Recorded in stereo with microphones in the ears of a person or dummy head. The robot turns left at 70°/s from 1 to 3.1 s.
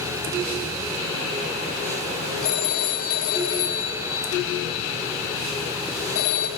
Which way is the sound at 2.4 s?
50° left (ahead or behind).